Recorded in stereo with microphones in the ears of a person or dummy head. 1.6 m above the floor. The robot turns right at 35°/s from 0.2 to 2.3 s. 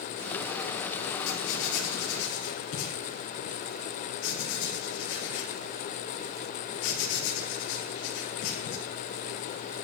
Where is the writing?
65° left (ahead or behind), 5 m; by 8.8 s 80° left, 5 m.